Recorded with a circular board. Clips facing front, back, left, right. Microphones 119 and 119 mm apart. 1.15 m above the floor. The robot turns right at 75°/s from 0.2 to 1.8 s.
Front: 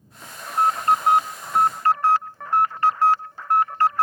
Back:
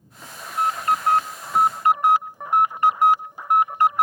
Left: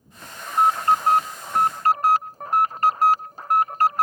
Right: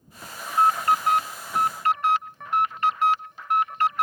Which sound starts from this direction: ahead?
An alarm, at 0.5 s.